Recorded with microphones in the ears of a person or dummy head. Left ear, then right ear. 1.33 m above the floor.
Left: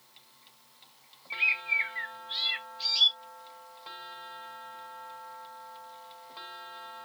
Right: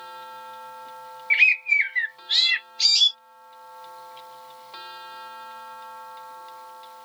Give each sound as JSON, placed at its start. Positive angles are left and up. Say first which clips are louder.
{"t": 1.3, "sound": "a bird", "louder": "right 9 dB", "side_deg": -65}